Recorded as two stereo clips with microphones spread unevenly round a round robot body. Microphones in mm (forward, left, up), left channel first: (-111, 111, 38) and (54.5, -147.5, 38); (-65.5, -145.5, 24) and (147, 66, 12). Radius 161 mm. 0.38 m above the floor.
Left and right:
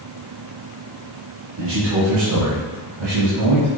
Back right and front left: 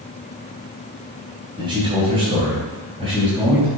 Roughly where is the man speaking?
Ahead right.